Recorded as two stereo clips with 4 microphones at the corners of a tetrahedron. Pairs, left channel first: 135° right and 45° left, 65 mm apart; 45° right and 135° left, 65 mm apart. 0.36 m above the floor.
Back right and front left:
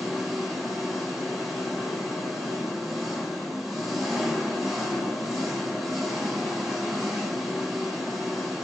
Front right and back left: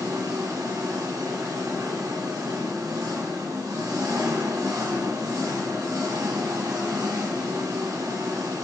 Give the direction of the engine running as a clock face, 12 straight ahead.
8 o'clock.